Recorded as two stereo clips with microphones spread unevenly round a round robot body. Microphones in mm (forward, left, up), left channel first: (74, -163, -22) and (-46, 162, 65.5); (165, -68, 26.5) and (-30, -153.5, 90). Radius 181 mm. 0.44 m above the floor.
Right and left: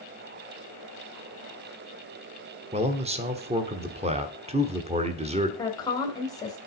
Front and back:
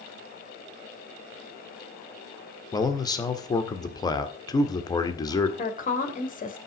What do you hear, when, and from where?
2.7 s a man speaking: 30° left, 1.3 m
5.6 s a woman speaking: straight ahead, 2.5 m